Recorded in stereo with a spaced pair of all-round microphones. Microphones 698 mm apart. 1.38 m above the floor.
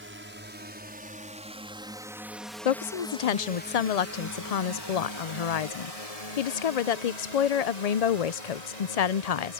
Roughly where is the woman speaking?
Left.